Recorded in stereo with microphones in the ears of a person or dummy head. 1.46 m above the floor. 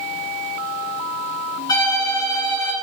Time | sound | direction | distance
1.7 | a violin | 25° left (ahead or behind) | 1.3 m